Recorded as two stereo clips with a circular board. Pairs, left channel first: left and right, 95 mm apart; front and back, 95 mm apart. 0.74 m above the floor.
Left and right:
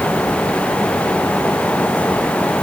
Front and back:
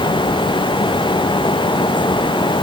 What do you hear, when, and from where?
Only background noise.